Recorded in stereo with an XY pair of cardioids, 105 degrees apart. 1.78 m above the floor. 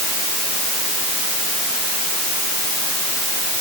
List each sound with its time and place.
Only background noise.